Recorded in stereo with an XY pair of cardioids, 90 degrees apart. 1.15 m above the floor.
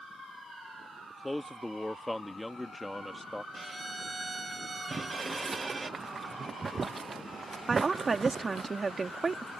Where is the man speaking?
10° left.